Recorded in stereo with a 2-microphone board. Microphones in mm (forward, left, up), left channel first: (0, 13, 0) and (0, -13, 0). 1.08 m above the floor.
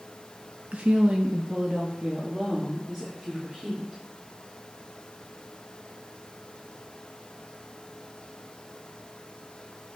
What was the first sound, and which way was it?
A woman speaking, 70° right (ahead or behind).